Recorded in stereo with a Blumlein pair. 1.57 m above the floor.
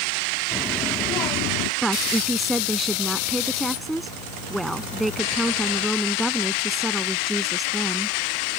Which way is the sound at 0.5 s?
15° left.